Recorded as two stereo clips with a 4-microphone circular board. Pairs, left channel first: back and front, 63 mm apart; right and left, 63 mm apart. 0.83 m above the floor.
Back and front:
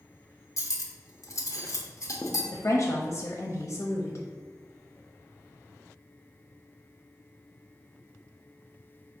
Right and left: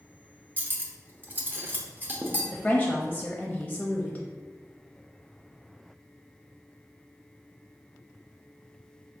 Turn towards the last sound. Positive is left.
turn(degrees=-165)